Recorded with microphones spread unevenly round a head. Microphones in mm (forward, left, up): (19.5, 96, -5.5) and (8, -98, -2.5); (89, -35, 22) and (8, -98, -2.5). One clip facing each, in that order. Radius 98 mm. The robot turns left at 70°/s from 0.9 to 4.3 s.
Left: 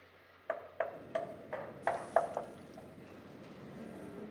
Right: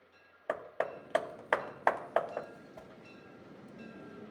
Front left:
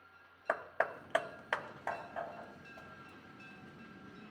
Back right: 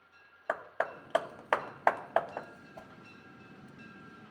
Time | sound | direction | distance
0.5 | hammering | 55° right | 0.5 m
2.8 | a whoosh | 95° right | 1.3 m